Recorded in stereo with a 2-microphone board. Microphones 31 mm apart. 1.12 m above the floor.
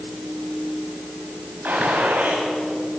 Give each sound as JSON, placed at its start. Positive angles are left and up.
{"t": 1.6, "sound": "a gunshot", "side_deg": -80, "distance_m": 7.0}